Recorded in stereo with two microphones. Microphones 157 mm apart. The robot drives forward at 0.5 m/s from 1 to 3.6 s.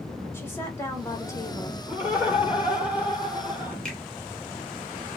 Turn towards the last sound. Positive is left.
turn(degrees=5)  # may be behind; listen again after turning